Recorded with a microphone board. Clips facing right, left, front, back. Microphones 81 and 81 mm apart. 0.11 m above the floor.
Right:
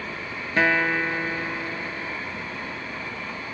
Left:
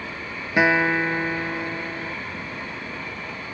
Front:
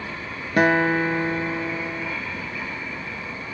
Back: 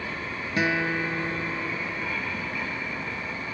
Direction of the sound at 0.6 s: 15° left.